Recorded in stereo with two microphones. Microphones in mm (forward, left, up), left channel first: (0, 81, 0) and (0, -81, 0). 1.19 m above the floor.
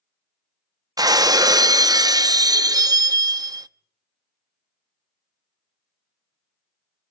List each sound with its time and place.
1.0 s breaking glass: 20° right (ahead or behind), 0.6 m